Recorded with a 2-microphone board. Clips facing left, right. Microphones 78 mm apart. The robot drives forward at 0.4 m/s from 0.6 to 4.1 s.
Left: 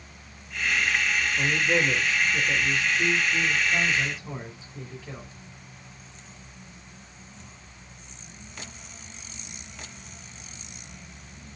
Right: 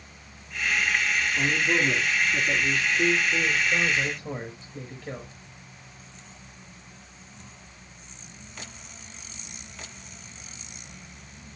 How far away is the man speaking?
About 5 m.